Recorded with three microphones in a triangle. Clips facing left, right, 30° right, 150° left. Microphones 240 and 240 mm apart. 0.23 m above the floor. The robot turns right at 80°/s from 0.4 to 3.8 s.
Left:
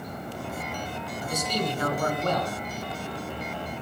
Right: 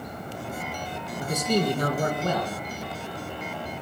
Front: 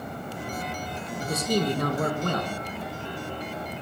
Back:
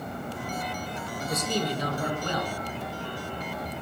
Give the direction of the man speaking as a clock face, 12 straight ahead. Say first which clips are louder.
Right 6 dB, front 4 dB; 3 o'clock.